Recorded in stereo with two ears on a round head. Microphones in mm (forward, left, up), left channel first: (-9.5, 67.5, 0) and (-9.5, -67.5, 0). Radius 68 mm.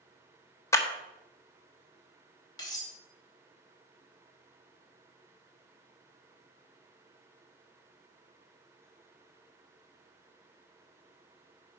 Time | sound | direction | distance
0.7 | a clap | 20° left (ahead or behind) | 1.1 m
2.6 | cutlery clinking | 30° left (ahead or behind) | 2.0 m